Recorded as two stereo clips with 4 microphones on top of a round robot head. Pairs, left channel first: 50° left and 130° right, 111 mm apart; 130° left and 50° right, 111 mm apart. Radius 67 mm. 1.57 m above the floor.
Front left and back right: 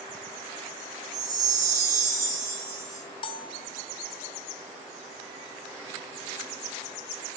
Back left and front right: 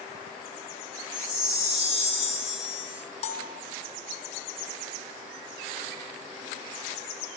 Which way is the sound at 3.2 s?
95° left.